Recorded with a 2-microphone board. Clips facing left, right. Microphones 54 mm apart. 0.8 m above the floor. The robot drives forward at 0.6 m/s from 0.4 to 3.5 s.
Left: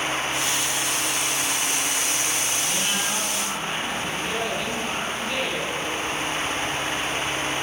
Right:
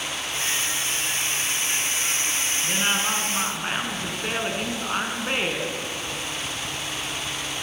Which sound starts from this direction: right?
A woman speaking, at 2.6 s.